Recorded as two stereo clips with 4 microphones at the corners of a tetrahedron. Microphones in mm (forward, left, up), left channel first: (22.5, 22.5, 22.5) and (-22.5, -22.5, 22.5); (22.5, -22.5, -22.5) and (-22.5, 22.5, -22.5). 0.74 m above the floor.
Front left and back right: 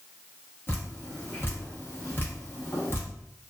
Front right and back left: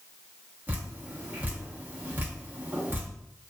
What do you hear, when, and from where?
0.7 s dripping: 90° left, 0.9 m